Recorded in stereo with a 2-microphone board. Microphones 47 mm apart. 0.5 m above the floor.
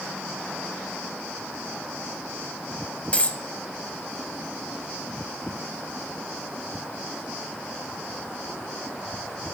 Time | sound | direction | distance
3.1 | a dropped coin | 30° left (ahead or behind) | 0.8 m